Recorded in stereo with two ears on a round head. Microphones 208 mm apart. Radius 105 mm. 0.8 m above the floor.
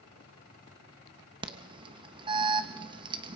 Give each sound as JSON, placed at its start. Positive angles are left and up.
{"t": 1.4, "sound": "an alarm", "side_deg": -20, "distance_m": 1.1}